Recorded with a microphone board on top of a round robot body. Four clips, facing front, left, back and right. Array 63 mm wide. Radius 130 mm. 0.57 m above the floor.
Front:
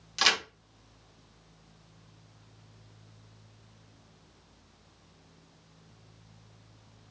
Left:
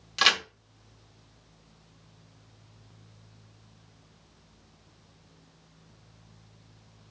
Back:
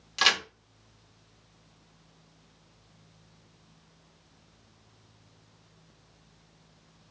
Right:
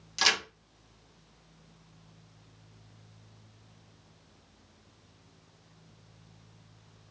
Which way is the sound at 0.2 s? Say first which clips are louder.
Left 4 dB, back 2 dB; 105° left.